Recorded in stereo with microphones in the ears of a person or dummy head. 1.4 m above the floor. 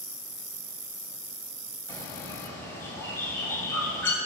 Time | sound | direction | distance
1.9 | a bird | 10° left (ahead or behind) | 2 m